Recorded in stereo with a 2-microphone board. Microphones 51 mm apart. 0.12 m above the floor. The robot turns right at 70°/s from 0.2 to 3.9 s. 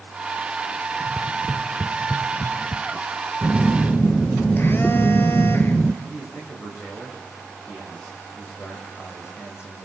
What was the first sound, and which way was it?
Tapping, 25° left (ahead or behind).